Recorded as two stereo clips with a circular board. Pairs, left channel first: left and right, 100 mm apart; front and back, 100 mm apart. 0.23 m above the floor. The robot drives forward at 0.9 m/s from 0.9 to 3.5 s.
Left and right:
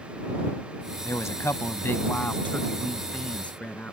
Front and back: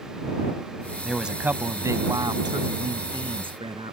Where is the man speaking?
90° left; by 3.9 s 165° left.